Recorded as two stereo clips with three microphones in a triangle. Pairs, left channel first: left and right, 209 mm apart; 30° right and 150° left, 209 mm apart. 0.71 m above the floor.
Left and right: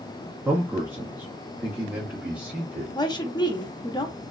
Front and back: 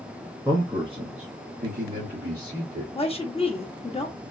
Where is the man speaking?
155° right, 0.8 m; by 2.9 s 170° right, 1.8 m.